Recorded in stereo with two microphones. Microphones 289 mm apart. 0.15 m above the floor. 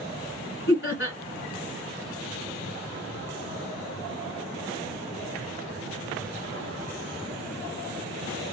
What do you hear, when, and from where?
0.7 s laughter: 45° left (ahead or behind), 1.5 m